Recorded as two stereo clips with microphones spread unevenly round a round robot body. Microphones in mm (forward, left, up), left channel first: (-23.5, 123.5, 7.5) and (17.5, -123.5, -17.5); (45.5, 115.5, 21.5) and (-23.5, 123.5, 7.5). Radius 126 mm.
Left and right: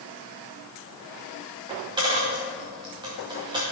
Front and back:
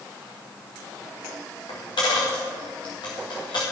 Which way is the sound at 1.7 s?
5° right.